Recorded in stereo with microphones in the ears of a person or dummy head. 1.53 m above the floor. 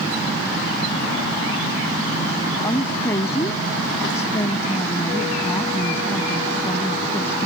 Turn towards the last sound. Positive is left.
turn(degrees=15)  # may be behind; listen again after turning